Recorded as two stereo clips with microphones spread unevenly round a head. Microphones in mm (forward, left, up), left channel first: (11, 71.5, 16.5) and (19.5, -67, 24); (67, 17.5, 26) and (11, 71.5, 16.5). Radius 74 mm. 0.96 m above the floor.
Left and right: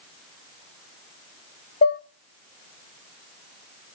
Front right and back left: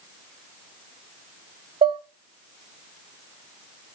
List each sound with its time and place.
1.8 s dishes clattering: 125° left, 0.5 m